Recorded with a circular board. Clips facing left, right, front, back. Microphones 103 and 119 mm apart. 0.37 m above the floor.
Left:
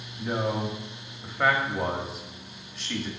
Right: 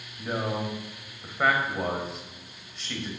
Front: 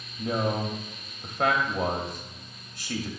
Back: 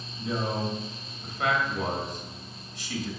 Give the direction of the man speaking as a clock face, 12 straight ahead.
12 o'clock.